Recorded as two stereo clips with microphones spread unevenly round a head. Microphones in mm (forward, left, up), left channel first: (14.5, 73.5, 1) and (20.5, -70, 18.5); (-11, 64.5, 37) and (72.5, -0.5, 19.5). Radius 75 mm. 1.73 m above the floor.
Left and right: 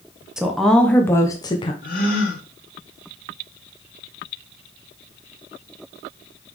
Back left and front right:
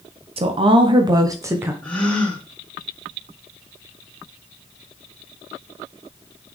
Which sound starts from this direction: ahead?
A woman speaking, at 0.4 s.